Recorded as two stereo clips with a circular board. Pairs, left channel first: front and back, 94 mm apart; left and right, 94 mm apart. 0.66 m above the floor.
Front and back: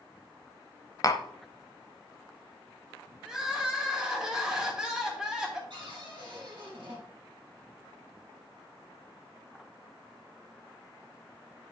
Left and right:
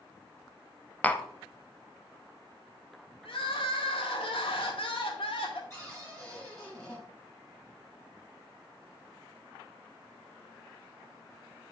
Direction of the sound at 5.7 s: 150° left.